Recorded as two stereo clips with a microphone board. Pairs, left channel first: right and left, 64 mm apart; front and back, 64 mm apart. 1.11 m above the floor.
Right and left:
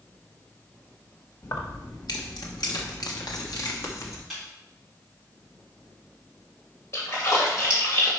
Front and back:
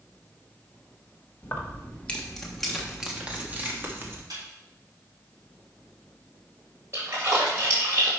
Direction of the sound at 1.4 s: 55° right.